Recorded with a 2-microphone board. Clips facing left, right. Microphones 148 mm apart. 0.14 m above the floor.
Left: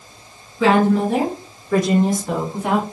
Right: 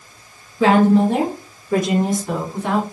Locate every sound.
0.6 s a woman speaking: 40° right (ahead or behind), 1.8 m; by 2.8 s 15° left (ahead or behind), 1.3 m